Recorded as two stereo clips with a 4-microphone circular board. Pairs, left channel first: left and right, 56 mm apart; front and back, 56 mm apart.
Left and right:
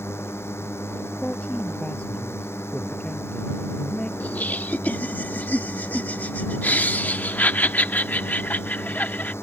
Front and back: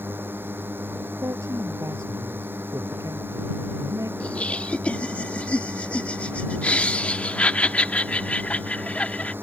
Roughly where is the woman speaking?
Behind left.